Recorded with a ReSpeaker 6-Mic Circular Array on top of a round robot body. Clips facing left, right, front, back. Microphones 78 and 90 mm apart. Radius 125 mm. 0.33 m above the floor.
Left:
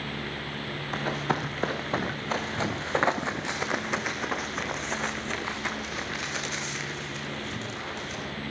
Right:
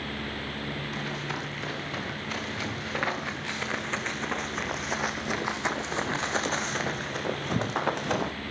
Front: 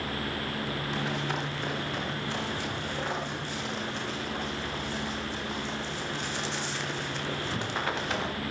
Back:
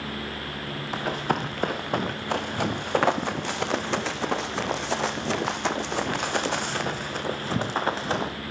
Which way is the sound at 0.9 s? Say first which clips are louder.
Left 5 dB, back 8 dB; 135° left.